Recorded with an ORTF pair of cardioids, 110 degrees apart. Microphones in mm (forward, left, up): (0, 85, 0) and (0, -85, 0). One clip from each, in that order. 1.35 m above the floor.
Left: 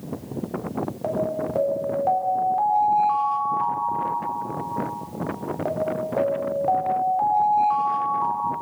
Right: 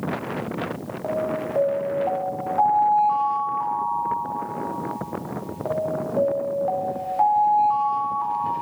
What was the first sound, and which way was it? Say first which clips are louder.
An alarm: right 1 dB; 15° left.